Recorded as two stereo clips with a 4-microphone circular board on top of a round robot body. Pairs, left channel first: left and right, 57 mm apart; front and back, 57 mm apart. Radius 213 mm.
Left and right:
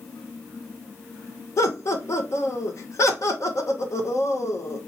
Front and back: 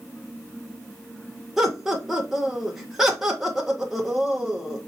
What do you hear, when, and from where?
1.6 s laughter: 95° left, 1.2 m